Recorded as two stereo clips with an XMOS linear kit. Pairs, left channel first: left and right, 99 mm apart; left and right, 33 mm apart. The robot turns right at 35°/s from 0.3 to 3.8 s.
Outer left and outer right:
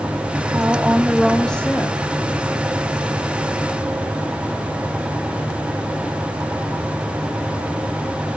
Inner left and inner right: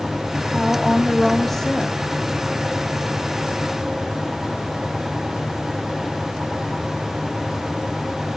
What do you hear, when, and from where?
0.5 s a woman speaking: 30° right, 1.2 m; by 2.0 s 25° left, 1.2 m